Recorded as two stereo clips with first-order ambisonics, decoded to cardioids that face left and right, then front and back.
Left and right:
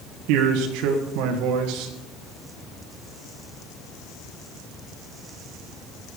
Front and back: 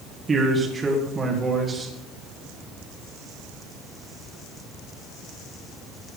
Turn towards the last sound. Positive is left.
turn(degrees=-105)